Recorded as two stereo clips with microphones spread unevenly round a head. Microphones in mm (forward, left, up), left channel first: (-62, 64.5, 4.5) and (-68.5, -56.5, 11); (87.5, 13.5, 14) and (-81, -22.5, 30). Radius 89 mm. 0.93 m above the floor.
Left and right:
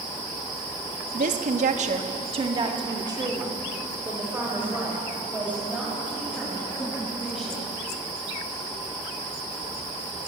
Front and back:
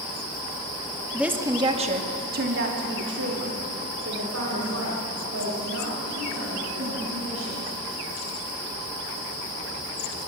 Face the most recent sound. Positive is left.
turn(degrees=-175)